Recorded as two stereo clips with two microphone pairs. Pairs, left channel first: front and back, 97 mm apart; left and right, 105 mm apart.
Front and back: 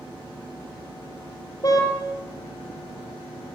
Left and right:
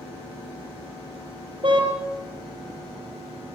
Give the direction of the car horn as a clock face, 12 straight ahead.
2 o'clock.